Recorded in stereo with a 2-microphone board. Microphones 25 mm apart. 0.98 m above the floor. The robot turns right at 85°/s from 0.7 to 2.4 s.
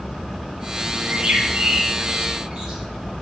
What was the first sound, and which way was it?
A bird, 40° right (ahead or behind).